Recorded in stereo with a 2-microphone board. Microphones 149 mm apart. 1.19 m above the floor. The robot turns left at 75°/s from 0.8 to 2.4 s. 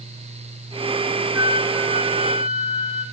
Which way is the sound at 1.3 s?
10° right.